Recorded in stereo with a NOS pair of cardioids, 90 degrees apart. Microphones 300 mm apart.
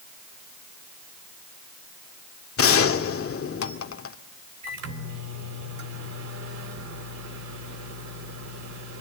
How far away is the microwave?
About 4 m.